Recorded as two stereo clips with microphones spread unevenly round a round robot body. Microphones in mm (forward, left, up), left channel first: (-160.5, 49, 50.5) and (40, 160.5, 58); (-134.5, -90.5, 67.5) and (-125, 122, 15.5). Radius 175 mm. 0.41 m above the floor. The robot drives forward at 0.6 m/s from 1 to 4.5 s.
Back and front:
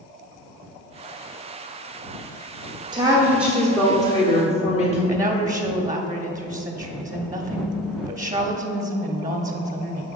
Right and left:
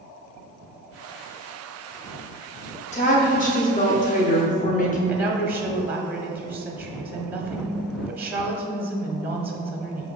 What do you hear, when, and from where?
2.9 s a woman speaking: 35° right, 1.1 m; by 5.0 s 135° right, 1.1 m
5.1 s a woman speaking: 85° left, 0.8 m